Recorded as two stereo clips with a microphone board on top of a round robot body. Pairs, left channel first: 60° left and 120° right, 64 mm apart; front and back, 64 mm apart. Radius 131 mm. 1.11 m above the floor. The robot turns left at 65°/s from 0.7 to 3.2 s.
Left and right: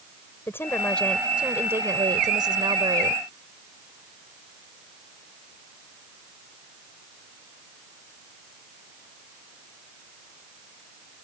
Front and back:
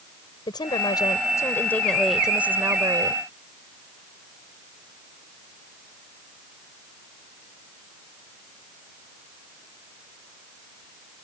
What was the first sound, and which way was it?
A woman speaking, straight ahead.